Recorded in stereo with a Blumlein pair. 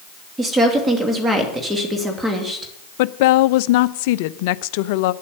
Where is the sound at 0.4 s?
10° right, 2.5 m.